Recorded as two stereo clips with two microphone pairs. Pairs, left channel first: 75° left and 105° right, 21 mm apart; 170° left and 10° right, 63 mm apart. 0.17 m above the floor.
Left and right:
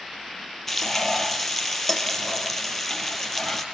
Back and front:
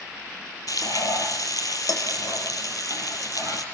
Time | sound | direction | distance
0.7 | frying | 155° left | 2.5 m